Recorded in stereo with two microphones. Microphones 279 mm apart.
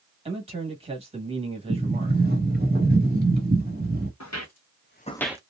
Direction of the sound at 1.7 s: 35° right (ahead or behind).